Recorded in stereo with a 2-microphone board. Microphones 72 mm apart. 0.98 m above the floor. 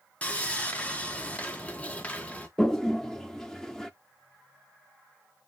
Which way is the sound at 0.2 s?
20° left (ahead or behind).